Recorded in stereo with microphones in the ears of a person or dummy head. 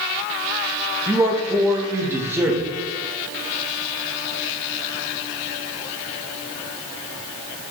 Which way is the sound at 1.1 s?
15° right (ahead or behind).